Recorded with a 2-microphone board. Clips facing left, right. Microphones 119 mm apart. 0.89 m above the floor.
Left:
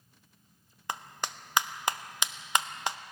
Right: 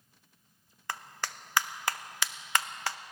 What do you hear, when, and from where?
0.9 s a clap: 20° left (ahead or behind), 0.6 m